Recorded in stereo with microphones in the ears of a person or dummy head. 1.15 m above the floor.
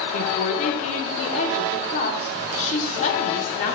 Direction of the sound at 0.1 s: 45° left (ahead or behind).